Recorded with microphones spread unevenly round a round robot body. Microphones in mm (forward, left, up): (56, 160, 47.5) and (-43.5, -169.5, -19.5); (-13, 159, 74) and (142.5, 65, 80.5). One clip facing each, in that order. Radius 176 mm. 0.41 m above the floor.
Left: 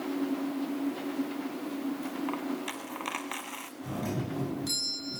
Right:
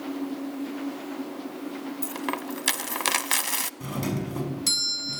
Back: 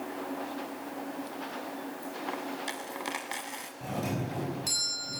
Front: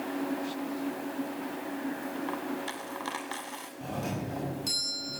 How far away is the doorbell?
About 5.5 m.